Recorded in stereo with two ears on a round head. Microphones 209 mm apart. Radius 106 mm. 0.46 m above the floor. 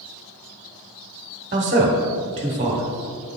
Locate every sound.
1.5 s a man speaking: 30° right (ahead or behind), 1.2 m